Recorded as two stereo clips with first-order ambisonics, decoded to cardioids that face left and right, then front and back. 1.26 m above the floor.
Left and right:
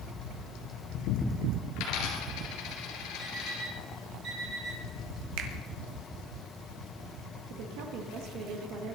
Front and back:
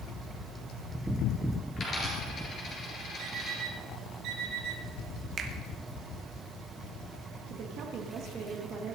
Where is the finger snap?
115° right, 1.7 m.